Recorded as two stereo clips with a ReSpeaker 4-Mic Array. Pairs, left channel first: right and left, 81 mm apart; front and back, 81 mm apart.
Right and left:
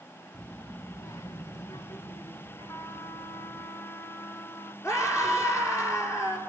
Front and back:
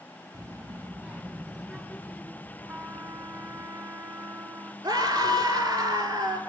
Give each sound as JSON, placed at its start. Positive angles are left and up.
{"t": 0.3, "sound": "a child speaking", "azimuth_deg": -170, "distance_m": 1.4}
{"t": 2.7, "sound": "a trumpet", "azimuth_deg": -130, "distance_m": 1.6}
{"t": 4.8, "sound": "a scream", "azimuth_deg": -145, "distance_m": 4.0}